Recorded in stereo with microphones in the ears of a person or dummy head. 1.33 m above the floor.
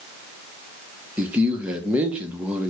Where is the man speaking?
10° right (ahead or behind), 0.7 m.